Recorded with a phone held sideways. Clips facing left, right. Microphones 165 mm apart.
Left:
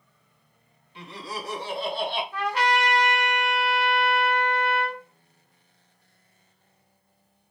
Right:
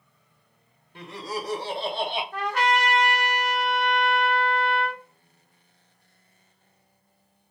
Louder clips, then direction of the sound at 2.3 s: Right 1 dB; 45° right (ahead or behind).